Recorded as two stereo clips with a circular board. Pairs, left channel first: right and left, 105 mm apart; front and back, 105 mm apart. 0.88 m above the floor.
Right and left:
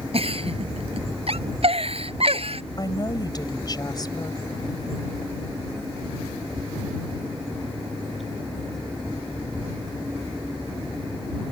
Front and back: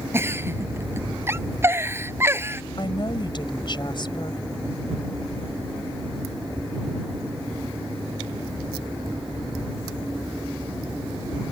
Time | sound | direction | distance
0.1 | a giggle | 115° left | ?
2.8 | a woman speaking | 40° right | ?